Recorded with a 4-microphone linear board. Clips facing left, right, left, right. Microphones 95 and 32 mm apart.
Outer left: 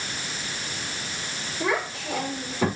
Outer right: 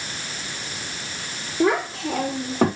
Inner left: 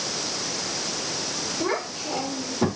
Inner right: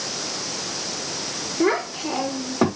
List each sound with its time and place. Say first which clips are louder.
1.6 s a child speaking: outer right 7 dB, inner right 8 dB; 80° right, 4.5 m; by 2.7 s 75° right (ahead or behind), 4.5 m